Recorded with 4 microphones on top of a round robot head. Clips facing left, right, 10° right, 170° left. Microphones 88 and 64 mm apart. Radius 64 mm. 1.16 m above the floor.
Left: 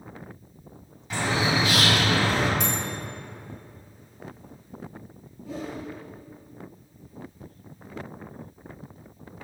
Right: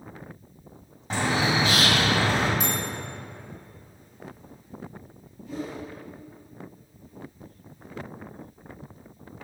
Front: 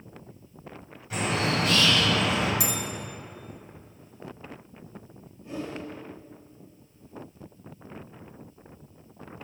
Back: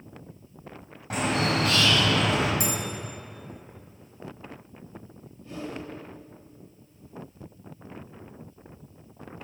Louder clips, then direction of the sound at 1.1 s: Right 1 dB, back 1 dB; 150° right.